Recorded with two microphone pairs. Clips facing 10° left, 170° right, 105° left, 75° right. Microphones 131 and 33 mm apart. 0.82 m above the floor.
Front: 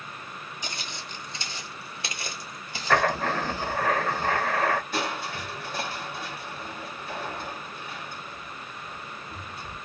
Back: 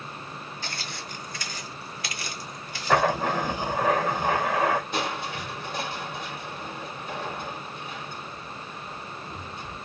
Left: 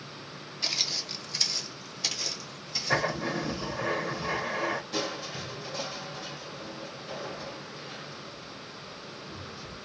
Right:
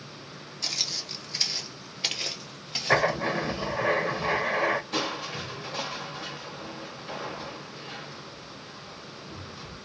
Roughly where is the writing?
Right.